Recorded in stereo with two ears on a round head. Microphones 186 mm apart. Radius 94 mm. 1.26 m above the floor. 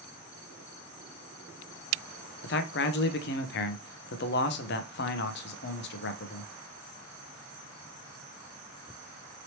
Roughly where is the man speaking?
Left.